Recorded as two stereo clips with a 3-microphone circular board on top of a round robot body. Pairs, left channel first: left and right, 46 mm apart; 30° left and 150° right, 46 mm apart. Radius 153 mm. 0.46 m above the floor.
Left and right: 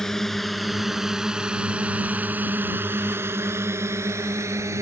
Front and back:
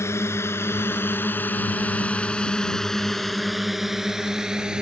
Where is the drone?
5° left; by 4.8 s 75° right.